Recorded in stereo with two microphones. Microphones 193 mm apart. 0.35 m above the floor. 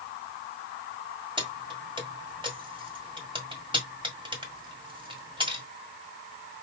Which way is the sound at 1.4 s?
25° right (ahead or behind).